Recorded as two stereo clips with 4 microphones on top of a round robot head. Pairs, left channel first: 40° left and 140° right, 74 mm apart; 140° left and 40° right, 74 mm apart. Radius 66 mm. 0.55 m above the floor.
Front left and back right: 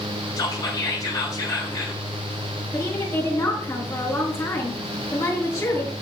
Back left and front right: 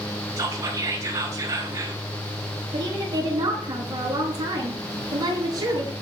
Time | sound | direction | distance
0.4 | whispering | straight ahead | 5 m
2.7 | a woman speaking | 10° right | 8.5 m